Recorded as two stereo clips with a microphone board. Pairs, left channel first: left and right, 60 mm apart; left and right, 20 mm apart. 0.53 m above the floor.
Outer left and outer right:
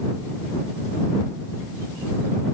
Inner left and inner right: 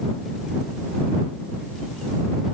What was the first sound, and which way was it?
Only background noise.